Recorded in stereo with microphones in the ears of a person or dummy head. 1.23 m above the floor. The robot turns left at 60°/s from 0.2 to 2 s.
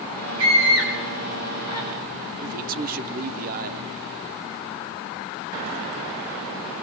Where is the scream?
80° right, 7.5 m; by 1.9 s 10° right (ahead or behind), 7.5 m.